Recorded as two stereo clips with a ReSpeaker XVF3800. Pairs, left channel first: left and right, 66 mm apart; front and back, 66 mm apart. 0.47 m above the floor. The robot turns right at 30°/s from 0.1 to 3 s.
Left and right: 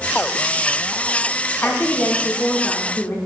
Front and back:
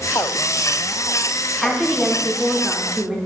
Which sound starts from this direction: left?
A woman speaking, at 1.6 s.